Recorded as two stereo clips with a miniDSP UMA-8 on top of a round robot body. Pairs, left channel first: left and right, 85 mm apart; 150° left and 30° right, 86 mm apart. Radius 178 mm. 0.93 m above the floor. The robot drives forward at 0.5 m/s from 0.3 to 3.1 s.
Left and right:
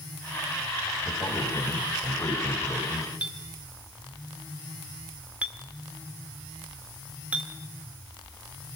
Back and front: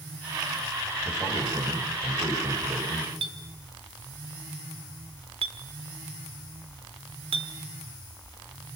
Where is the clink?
15° right, 1.6 m.